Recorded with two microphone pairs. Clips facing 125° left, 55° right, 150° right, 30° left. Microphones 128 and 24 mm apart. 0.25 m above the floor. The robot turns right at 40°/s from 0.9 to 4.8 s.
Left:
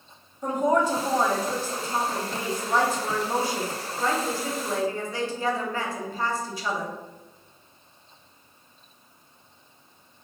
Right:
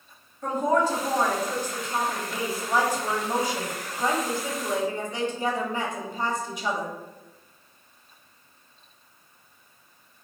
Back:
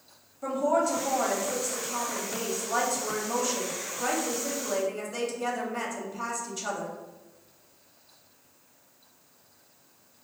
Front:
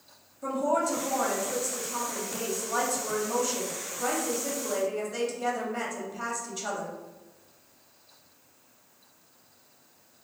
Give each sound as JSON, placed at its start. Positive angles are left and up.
{"t": 0.4, "sound": "a woman speaking", "azimuth_deg": 170, "distance_m": 1.0}